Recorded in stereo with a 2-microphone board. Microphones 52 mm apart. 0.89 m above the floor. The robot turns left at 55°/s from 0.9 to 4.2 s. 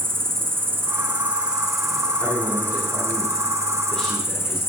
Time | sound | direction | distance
0.0 | an insect | 125° right | 1.3 m
2.2 | a man speaking | 115° left | 3 m